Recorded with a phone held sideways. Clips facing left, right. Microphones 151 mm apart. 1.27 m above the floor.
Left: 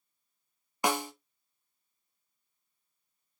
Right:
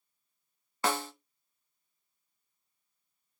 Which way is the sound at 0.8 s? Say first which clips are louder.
Left 2 dB; 15° left (ahead or behind).